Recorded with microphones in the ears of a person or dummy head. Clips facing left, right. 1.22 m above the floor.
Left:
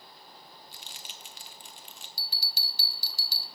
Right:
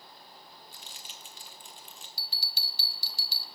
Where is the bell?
35° left (ahead or behind), 0.8 m.